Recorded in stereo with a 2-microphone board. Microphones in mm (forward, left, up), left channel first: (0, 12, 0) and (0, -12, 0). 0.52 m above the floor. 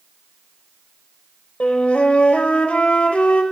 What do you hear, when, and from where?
1.6 s a flute: 65° left (ahead or behind), 0.7 m